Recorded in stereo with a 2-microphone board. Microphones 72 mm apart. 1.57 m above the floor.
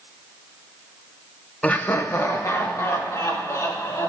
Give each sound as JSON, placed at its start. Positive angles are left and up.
{"t": 1.6, "sound": "laughter", "side_deg": 15, "distance_m": 0.7}